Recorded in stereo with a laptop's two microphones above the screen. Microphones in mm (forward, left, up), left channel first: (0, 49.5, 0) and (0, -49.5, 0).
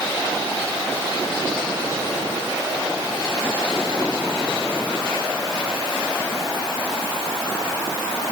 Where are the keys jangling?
No keys jangling in this recording.